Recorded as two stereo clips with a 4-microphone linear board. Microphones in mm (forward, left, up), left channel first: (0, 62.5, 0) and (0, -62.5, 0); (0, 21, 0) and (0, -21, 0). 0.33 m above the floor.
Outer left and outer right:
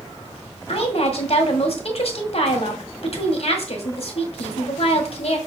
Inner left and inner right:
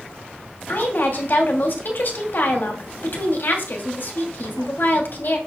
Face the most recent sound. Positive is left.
turn(degrees=55)  # may be behind; listen again after turning